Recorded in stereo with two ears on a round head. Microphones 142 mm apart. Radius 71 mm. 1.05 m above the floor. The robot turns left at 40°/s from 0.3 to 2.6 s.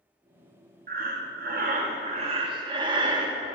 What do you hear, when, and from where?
0.9 s breathing: 75° right, 0.7 m; by 3.5 s 145° right, 0.7 m